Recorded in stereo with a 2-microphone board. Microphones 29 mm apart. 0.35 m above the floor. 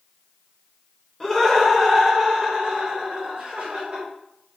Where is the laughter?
20° left (ahead or behind), 1.2 m; by 4.0 s 35° right (ahead or behind), 1.8 m.